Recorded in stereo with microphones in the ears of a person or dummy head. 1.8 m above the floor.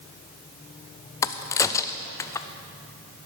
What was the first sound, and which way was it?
A crack, 20° left (ahead or behind).